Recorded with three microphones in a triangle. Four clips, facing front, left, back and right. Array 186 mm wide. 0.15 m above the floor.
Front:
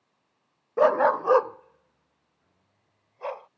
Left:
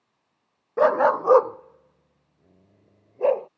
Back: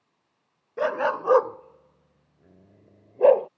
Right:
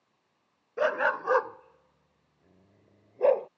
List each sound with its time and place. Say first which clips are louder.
0.8 s a dog barking: left 8 dB, front 5 dB; 50° left; by 3.5 s 175° left